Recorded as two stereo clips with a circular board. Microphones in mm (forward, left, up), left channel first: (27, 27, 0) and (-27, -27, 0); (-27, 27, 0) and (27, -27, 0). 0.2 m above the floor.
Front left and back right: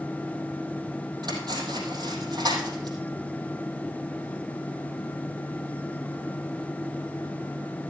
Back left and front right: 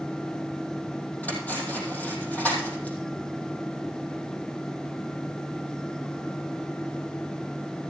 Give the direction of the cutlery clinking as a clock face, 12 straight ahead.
5 o'clock.